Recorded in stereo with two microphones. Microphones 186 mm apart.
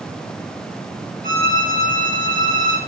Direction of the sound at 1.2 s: 50° right (ahead or behind).